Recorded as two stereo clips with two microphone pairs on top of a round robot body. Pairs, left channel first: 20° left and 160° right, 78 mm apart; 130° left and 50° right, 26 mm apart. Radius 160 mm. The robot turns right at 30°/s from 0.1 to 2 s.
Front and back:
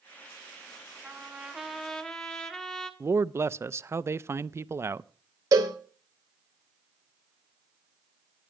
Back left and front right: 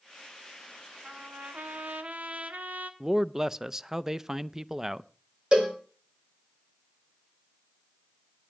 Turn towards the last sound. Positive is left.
turn(degrees=-115)